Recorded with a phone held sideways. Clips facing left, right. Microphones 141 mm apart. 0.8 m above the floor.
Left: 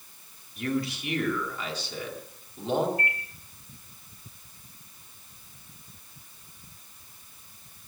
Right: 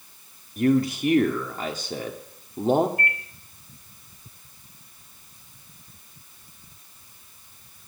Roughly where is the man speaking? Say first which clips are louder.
Right 9 dB; right.